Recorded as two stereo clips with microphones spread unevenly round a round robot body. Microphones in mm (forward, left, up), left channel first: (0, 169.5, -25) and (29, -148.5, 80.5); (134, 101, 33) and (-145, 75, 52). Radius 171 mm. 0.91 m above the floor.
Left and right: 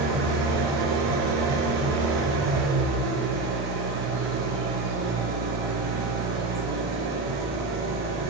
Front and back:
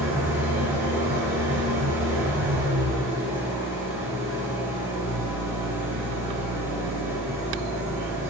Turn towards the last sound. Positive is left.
turn(degrees=-90)